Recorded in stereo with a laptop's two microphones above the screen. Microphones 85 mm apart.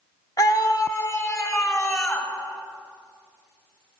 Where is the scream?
45° left (ahead or behind), 1.5 m; by 2.3 s 30° left (ahead or behind), 3 m.